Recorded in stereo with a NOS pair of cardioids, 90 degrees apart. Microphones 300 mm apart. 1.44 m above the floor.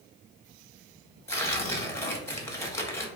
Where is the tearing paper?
10° left, 0.7 m.